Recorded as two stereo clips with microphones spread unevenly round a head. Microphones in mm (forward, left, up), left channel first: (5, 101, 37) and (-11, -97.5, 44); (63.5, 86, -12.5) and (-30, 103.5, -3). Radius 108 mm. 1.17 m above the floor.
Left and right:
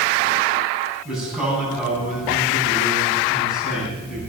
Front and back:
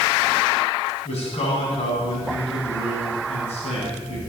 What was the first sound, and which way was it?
A man speaking, 10° right.